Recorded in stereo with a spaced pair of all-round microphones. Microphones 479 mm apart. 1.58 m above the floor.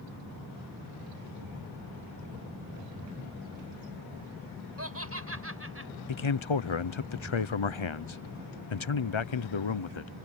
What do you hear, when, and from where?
4.8 s laughter: 30° right (ahead or behind); by 5.9 s 25° right (ahead or behind)
6.1 s a man speaking: 75° left (ahead or behind)